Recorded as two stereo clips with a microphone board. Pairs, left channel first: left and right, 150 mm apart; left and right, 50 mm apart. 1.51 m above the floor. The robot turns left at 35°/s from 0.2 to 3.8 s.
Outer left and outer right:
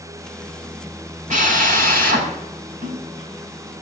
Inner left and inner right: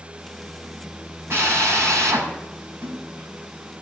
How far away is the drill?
About 5.5 m.